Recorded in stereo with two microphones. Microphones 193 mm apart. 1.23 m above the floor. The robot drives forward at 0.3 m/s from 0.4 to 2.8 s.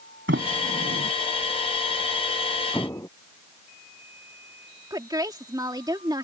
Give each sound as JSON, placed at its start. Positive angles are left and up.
{"t": 0.3, "sound": "a sliding door", "side_deg": -70}
{"t": 2.7, "sound": "an explosion", "side_deg": 15}
{"t": 4.9, "sound": "a woman speaking", "side_deg": -20}